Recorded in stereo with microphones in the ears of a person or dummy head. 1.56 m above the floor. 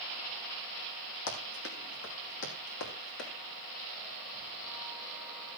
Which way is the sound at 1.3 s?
65° left (ahead or behind).